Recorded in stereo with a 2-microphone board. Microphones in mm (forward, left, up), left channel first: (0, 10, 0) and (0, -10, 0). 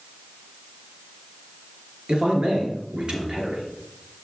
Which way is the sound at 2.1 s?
55° right (ahead or behind).